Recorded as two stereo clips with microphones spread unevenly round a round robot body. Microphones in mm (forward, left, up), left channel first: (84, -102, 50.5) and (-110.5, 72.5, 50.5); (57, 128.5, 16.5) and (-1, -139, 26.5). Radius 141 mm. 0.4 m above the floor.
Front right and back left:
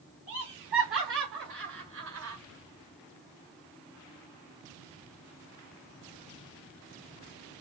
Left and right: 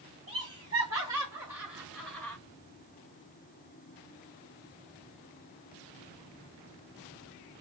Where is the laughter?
170° right, 2 m; by 2.4 s 155° left, 1.5 m.